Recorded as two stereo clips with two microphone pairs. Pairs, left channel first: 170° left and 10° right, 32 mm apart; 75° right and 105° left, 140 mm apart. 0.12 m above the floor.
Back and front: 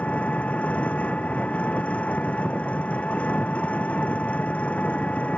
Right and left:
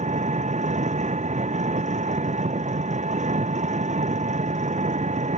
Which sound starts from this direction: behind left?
An engine running, at 0.0 s.